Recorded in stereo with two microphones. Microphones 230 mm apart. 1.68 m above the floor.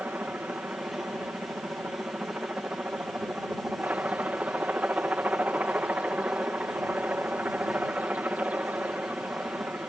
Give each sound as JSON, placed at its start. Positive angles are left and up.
{"t": 0.0, "sound": "a helicopter", "side_deg": -5}